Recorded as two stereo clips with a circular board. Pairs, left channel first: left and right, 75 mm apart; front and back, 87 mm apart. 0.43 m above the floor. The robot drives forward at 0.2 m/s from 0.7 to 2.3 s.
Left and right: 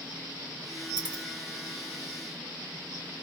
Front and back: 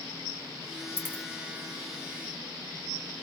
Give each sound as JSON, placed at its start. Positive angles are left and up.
{"t": 1.0, "sound": "a dropped coin", "azimuth_deg": 110, "distance_m": 2.5}